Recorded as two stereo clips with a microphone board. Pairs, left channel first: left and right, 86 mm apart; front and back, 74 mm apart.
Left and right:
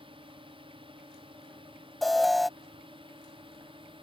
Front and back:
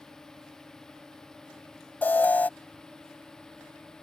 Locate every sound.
0.0 s a drone: 85° right; by 4.0 s 80° right
2.0 s an alarm: straight ahead